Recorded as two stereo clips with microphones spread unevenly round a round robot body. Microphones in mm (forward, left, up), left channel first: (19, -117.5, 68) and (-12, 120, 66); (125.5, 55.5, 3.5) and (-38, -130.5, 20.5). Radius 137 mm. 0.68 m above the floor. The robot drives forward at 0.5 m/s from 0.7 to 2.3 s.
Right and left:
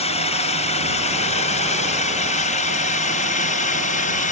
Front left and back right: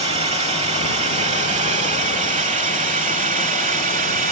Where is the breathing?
No breathing in this recording.